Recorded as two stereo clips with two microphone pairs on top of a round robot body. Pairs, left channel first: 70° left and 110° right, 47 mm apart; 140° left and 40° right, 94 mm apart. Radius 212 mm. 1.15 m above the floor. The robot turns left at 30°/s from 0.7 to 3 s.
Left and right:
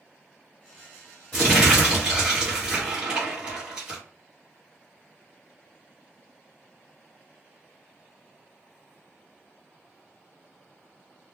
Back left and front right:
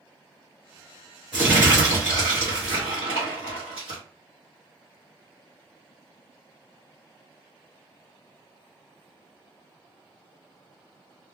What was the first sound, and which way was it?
Crumpling, 5° right.